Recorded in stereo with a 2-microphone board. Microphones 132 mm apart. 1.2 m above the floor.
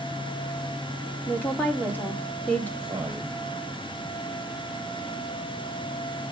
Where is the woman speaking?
15° left (ahead or behind), 1.9 m.